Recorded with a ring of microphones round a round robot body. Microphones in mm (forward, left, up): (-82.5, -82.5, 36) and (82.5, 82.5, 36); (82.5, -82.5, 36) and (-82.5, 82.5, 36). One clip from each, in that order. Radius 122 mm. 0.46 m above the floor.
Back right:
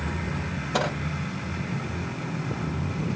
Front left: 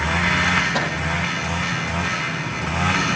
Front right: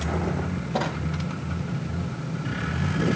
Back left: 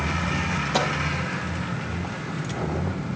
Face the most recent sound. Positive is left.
turn(degrees=150)